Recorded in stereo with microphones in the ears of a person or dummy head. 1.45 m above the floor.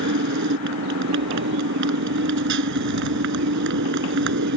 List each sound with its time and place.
0.0 s a motorcycle: 70° right (ahead or behind)